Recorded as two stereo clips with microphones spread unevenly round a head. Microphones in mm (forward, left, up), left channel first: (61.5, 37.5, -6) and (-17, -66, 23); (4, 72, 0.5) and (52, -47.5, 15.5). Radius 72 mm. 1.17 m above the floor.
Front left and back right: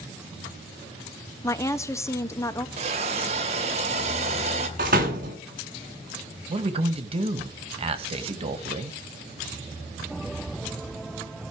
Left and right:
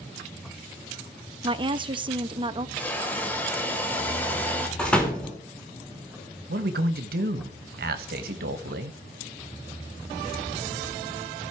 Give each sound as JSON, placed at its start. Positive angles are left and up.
{"t": 1.4, "sound": "a woman speaking", "azimuth_deg": -15, "distance_m": 1.3}
{"t": 2.8, "sound": "a hiss", "azimuth_deg": -165, "distance_m": 1.7}
{"t": 4.8, "sound": "a door slam", "azimuth_deg": -165, "distance_m": 3.0}
{"t": 6.5, "sound": "a man speaking", "azimuth_deg": -80, "distance_m": 1.8}